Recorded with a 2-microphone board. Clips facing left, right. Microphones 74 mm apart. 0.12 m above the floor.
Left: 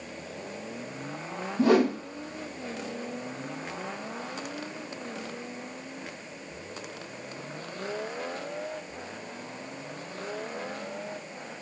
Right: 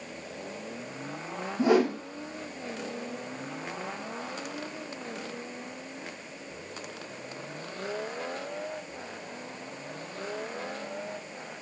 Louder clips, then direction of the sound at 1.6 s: Left 1 dB; 70° left (ahead or behind).